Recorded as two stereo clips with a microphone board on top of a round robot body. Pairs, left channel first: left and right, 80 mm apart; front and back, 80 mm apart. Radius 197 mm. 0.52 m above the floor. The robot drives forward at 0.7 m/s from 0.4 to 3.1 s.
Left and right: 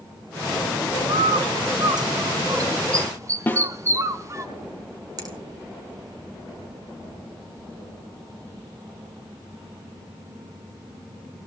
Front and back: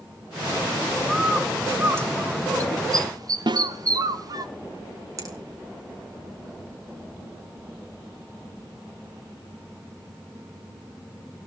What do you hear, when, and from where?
1.1 s a bird: 95° right, 1.3 m; by 4.5 s 140° right, 1.9 m
3.5 s a snare drum: 155° left, 1.6 m
5.2 s a finger snap: 130° right, 6 m